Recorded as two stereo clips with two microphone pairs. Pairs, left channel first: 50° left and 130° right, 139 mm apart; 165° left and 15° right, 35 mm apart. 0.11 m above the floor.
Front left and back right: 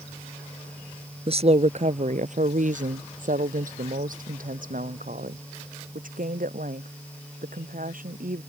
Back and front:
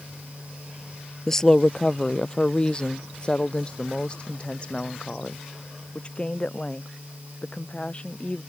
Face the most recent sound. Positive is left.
turn(degrees=-135)